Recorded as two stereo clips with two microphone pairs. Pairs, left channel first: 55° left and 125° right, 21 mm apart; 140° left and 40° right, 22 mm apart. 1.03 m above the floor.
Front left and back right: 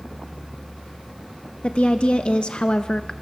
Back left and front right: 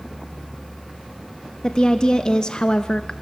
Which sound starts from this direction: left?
A woman speaking, at 1.6 s.